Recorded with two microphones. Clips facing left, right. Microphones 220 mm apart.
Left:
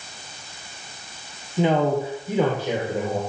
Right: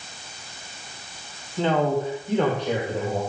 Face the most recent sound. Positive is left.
turn(degrees=5)  # may be behind; listen again after turning